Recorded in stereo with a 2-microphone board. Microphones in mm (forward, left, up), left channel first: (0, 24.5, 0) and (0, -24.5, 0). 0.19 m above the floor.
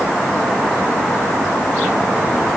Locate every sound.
Only background noise.